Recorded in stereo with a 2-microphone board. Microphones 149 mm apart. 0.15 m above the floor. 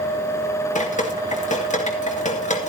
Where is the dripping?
55° left (ahead or behind), 2 m.